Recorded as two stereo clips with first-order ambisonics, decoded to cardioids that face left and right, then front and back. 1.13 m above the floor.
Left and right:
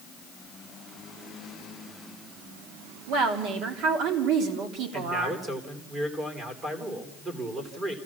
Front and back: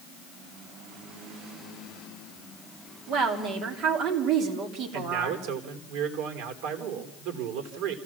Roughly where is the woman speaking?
Behind right.